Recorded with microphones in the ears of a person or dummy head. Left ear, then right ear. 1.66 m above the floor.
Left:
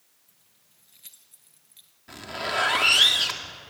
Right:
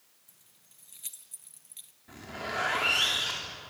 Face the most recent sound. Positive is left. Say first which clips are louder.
# left 7 dB
turn(degrees=35)  # may be behind; listen again after turning